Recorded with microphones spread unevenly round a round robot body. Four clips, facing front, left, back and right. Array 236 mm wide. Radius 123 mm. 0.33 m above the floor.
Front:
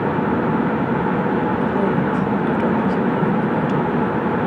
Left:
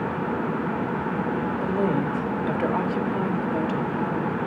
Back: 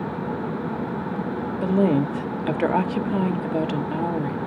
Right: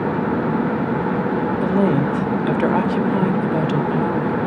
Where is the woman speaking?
120° right, 1.0 m.